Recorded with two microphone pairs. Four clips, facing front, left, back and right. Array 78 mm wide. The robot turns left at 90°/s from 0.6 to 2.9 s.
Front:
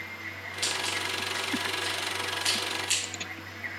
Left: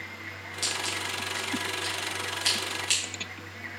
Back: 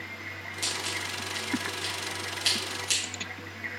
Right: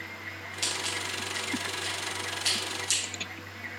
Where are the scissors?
70° right, 3 m; by 3.0 s 85° left, 3 m.